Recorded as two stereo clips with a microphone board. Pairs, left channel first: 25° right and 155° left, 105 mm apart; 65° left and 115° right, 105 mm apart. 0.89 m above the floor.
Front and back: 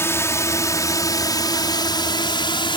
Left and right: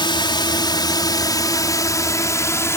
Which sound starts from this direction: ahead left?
A drone, at 0.0 s.